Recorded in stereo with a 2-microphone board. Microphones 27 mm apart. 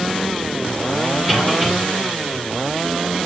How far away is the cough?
About 2 m.